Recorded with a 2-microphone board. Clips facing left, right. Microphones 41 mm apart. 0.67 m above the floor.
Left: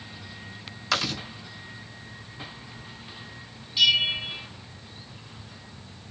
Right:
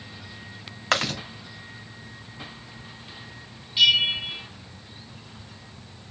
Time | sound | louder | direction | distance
0.9 | chewing | right 3 dB | 45° right (ahead or behind) | 1.8 m
3.8 | a bell | right 2 dB | 30° right (ahead or behind) | 1.9 m